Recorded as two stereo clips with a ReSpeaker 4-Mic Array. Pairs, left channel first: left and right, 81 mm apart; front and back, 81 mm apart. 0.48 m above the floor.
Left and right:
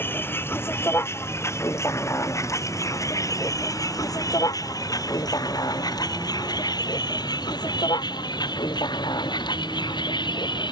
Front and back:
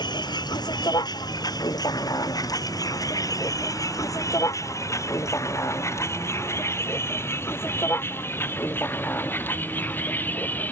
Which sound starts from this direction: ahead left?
A vehicle, at 0.0 s.